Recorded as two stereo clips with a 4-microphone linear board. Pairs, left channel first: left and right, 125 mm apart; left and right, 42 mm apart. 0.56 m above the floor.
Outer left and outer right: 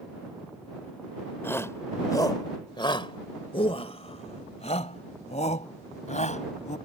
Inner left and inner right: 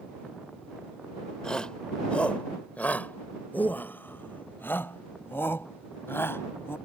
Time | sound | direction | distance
1.4 | a shout | 20° left (ahead or behind) | ?